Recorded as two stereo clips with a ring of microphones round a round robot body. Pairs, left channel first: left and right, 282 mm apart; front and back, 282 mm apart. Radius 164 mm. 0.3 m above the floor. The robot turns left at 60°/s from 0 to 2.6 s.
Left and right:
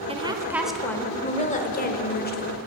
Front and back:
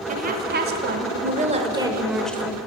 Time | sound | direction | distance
0.1 | a woman speaking | 140° right | 1.1 m